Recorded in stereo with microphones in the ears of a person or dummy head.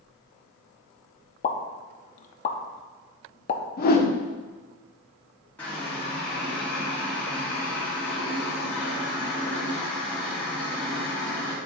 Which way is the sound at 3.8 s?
45° left (ahead or behind).